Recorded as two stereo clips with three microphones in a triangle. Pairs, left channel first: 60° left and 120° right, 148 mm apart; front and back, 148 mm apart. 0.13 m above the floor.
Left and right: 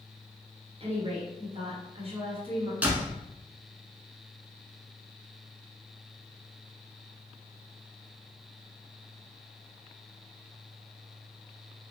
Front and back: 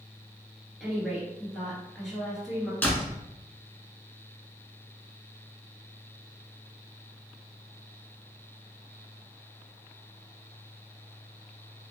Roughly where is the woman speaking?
Right.